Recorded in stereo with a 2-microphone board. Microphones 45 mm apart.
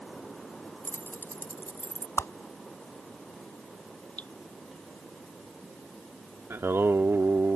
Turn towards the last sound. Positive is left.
turn(degrees=-60)  # may be behind; listen again after turning